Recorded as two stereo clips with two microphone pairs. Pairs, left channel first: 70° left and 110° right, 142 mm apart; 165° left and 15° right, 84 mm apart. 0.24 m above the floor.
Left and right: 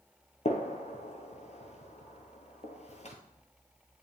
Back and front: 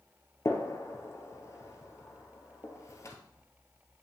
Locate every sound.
0.5 s a gunshot: 110° left, 1.1 m